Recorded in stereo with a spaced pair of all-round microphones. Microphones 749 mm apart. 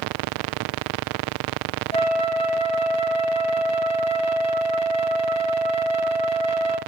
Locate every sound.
1.9 s a flute: 10° left (ahead or behind), 0.8 m